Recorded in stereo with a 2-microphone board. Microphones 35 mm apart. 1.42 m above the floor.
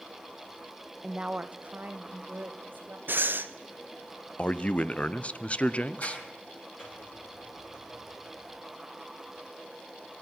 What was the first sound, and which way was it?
A woman speaking, 15° right (ahead or behind).